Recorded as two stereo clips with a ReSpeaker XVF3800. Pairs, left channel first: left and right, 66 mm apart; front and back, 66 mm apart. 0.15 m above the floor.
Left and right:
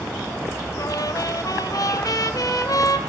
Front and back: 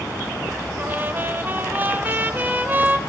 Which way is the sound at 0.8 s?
115° left.